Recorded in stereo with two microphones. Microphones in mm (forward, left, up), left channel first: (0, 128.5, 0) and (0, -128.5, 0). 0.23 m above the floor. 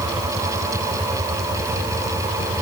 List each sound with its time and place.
Only background noise.